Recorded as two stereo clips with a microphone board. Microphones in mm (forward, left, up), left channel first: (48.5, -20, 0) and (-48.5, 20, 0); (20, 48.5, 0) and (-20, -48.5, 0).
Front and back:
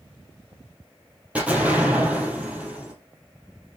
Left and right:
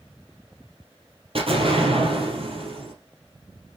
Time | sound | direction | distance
1.4 | an explosion | 125° right | 3.5 m